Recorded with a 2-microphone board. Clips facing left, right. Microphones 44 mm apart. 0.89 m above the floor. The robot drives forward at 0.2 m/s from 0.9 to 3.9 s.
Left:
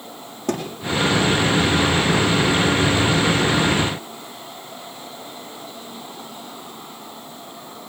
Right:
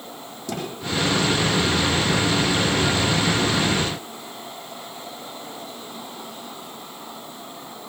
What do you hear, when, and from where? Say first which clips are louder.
0.5 s a thud: left 5 dB; 50° left (ahead or behind), 7 m